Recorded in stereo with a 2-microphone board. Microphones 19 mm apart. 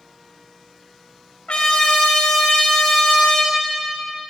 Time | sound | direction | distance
1.5 | a trumpet | 60° left (ahead or behind) | 1.8 m